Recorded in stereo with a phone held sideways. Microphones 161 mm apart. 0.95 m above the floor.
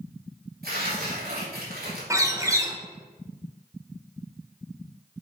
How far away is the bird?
About 0.8 m.